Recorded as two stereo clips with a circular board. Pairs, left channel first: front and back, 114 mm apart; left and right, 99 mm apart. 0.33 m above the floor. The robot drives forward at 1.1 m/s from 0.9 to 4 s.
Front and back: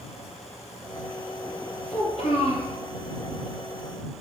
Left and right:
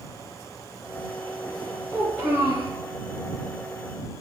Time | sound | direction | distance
1.9 | a child speaking | 10° right | 3 m